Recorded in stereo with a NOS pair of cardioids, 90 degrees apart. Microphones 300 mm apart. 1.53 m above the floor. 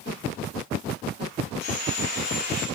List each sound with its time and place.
1.6 s sawing: 60° left, 5.5 m